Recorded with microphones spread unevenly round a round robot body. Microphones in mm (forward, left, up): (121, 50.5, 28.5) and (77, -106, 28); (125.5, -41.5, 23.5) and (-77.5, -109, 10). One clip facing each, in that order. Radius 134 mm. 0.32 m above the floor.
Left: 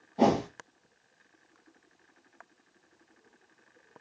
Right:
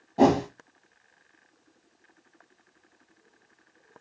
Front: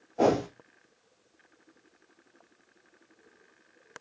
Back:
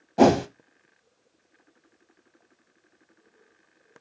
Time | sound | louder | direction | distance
0.2 | a whoosh | right 4 dB, back 6 dB | 165° right | 0.5 m